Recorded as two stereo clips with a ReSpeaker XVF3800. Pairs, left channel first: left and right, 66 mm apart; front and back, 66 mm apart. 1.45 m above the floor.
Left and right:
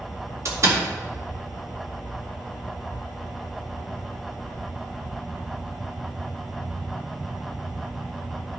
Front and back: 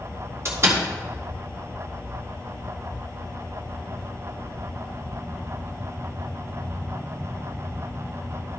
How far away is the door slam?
About 2.5 m.